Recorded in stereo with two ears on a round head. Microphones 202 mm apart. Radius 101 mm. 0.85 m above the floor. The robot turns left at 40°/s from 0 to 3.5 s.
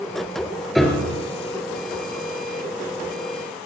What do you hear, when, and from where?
0.8 s a piano: centre (ahead or behind), 2.5 m; by 1.2 s 15° left (ahead or behind), 2.5 m